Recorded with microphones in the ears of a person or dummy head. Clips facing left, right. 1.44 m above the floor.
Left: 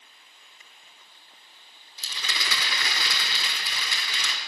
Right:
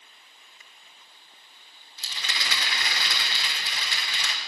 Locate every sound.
2.0 s a rattle: 75° left (ahead or behind), 5 m